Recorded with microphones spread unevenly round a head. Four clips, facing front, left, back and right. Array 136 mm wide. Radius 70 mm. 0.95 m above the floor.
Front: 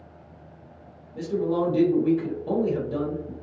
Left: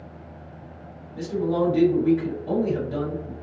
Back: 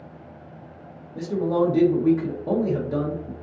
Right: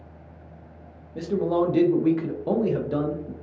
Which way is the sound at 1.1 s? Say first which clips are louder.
Right 1 dB, back 2 dB; 135° right.